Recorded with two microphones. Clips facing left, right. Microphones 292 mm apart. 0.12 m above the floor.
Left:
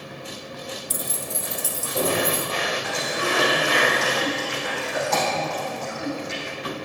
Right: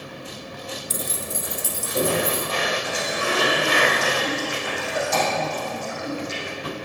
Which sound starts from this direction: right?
Keys jangling, at 0.9 s.